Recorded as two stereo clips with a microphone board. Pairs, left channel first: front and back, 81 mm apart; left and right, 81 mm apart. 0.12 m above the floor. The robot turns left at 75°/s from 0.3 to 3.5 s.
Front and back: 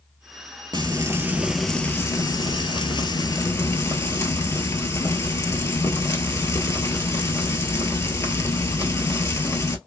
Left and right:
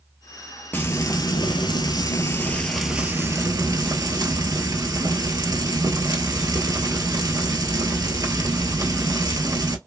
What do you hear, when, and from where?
0.7 s frying: 155° left, 0.8 m; by 9.8 s 55° right, 0.8 m